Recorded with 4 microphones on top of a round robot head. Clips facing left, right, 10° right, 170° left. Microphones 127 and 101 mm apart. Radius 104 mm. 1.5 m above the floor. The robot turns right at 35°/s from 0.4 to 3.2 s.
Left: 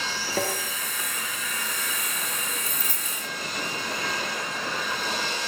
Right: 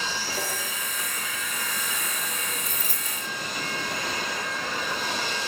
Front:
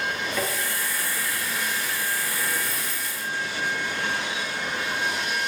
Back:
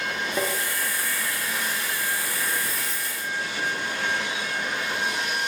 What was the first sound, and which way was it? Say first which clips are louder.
Tapping: left 8 dB, back 3 dB; 105° left.